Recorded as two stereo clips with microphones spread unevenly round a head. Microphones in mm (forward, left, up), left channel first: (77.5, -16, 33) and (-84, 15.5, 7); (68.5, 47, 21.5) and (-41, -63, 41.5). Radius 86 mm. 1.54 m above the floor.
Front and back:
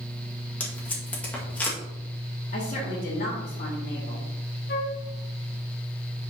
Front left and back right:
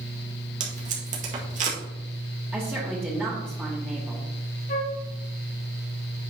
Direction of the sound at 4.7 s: 5° left.